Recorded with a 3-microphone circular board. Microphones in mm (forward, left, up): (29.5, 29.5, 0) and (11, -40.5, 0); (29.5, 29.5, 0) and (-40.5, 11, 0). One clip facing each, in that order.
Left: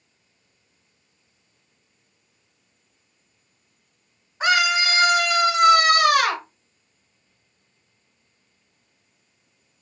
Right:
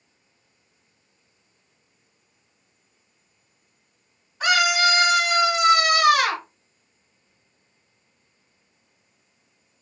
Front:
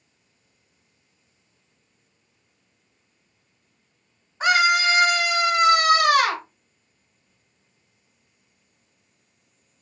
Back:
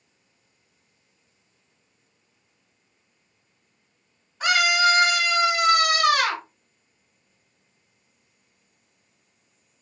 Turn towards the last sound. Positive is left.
turn(degrees=55)